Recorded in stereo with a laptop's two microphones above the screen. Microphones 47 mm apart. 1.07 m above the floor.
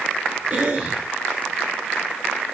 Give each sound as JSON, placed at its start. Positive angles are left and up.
{"t": 0.5, "sound": "a cough", "side_deg": -40, "distance_m": 3.0}